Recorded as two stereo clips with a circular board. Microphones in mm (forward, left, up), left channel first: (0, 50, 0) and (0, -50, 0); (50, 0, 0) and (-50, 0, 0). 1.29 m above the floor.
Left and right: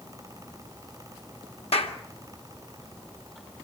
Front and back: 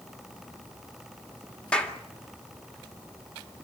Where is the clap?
80° left, 2.0 m.